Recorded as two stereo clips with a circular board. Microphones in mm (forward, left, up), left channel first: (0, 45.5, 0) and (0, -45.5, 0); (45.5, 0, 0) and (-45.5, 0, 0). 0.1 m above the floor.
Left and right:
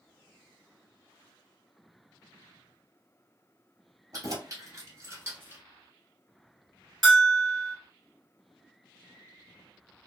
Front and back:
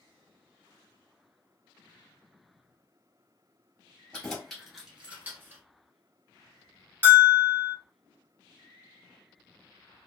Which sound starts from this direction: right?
Keys jangling, at 4.1 s.